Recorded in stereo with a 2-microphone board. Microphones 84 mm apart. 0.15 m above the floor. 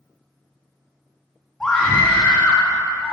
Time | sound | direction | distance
1.6 | a scream | 5° left (ahead or behind) | 1.5 m